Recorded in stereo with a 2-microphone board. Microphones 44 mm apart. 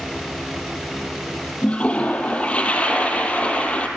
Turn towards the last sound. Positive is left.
turn(degrees=30)  # may be behind; listen again after turning